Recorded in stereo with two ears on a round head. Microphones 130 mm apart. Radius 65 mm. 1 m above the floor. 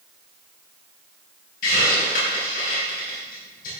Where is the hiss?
65° left (ahead or behind), 5.5 m.